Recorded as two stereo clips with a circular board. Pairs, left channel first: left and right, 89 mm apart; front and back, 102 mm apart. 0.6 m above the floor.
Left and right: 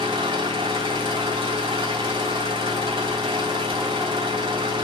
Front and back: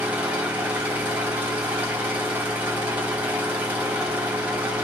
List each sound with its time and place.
0.0 s an engine running: 105° right, 2 m